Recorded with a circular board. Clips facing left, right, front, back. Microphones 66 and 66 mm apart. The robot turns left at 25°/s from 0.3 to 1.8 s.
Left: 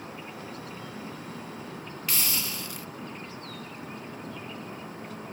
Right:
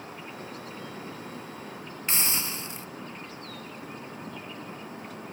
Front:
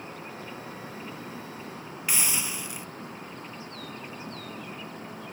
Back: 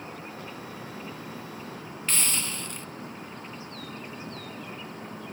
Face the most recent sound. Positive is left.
turn(degrees=-65)